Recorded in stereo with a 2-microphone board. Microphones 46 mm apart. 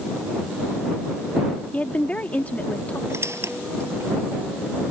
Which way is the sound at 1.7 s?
35° left (ahead or behind).